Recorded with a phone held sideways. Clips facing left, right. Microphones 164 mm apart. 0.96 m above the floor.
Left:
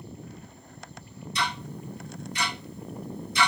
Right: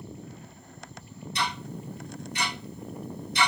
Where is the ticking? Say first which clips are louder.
Even; 60° right (ahead or behind), 1.7 m.